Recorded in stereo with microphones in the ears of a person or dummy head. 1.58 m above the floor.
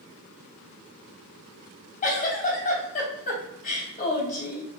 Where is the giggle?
40° left (ahead or behind), 3 m.